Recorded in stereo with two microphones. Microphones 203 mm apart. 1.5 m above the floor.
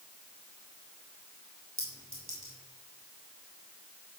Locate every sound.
1.8 s a clink: 70° right (ahead or behind), 5.5 m